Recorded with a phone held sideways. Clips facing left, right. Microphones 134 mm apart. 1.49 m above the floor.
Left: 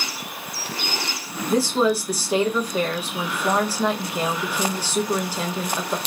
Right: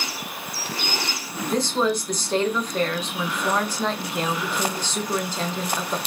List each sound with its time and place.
1.5 s a woman speaking: 10° left (ahead or behind), 0.9 m